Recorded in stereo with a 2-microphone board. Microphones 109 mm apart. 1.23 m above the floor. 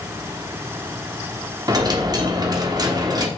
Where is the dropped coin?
40° right (ahead or behind), 1.1 m.